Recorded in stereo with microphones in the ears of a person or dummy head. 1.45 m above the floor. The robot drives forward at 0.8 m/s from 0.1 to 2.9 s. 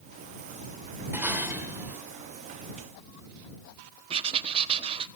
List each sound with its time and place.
1.1 s dishes clattering: 15° right (ahead or behind), 4 m
4.1 s writing: 25° right (ahead or behind), 1.1 m